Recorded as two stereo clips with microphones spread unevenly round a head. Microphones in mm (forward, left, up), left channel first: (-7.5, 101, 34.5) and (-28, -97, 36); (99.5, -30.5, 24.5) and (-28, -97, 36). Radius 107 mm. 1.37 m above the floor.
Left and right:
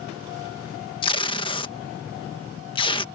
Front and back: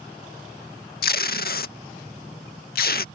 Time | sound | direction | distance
1.0 | tape being pulled | 15° left | ?